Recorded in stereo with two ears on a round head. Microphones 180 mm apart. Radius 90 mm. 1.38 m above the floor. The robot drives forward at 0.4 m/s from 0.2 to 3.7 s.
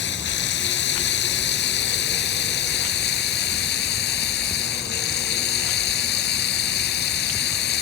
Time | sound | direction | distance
0.0 | running water | 65° left (ahead or behind) | ?